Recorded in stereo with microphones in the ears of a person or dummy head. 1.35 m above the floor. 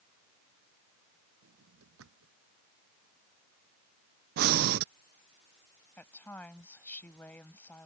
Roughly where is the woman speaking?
Centre.